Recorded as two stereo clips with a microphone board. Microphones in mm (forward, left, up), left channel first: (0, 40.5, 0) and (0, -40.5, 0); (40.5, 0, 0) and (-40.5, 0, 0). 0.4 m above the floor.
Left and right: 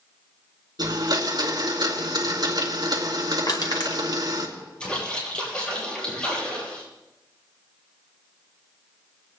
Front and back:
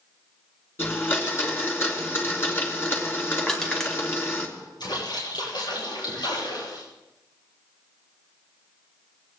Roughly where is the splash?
Ahead.